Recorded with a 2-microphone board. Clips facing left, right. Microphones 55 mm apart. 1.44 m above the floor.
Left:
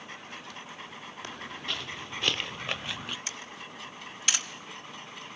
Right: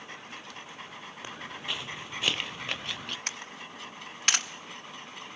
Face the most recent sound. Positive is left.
turn(degrees=-55)  # may be behind; listen again after turning